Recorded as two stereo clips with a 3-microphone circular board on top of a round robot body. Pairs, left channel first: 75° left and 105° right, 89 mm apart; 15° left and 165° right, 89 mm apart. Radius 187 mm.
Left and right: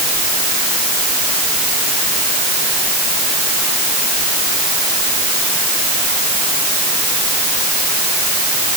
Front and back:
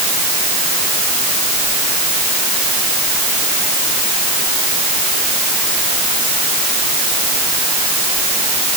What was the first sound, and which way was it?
Only background noise.